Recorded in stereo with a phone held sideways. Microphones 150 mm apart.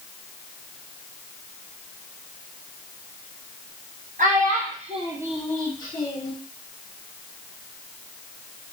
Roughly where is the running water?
I don't hear running water.